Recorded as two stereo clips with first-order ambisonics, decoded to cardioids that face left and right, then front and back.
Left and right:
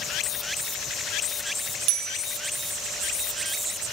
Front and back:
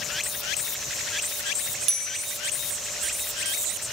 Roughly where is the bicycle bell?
Behind right.